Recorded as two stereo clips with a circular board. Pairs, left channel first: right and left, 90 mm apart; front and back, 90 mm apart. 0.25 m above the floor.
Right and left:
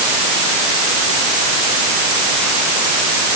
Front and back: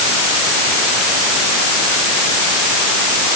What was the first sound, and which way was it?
Only background noise.